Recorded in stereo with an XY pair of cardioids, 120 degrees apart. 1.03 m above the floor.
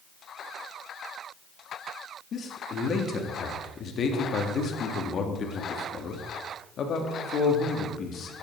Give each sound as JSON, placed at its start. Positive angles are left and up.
{"t": 2.3, "sound": "a man speaking", "azimuth_deg": 50, "distance_m": 1.6}